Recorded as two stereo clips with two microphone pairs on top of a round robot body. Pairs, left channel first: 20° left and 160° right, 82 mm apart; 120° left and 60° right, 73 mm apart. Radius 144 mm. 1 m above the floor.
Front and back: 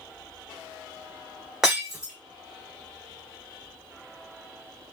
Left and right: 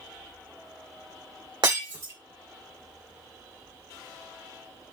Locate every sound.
1.6 s breaking glass: 80° right, 2.5 m